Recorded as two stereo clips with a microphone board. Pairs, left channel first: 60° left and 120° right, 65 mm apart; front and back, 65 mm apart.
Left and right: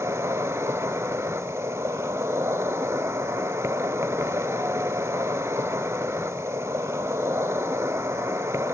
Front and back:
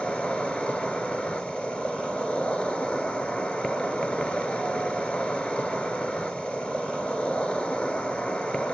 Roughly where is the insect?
Right.